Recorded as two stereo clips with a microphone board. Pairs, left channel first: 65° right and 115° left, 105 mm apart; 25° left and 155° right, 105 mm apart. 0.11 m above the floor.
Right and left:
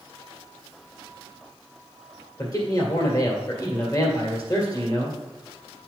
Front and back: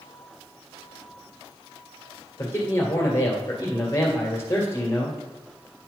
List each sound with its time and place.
2.4 s a man speaking: 30° right, 2 m